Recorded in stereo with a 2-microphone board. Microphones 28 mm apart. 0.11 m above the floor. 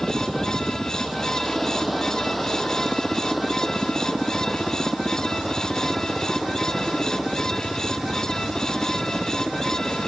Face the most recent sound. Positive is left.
turn(degrees=-5)  # may be behind; listen again after turning